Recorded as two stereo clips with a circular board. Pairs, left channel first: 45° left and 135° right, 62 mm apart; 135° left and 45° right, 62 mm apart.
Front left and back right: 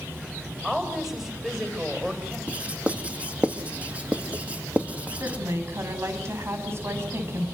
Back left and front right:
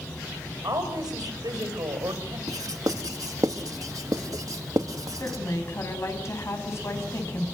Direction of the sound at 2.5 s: 65° right.